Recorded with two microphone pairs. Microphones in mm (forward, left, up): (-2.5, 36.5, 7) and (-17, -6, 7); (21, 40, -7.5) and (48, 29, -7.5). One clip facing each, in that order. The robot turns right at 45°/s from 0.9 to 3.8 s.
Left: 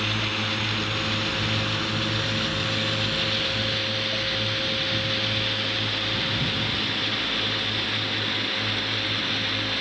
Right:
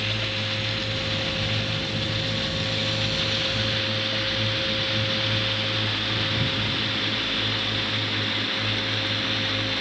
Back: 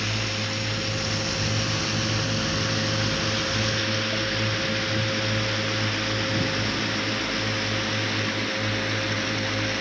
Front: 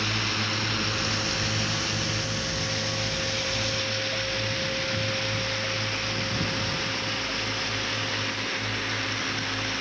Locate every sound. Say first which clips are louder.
0.0 s a drone: left 1 dB, front 1 dB; 35° left; by 9.8 s 160° left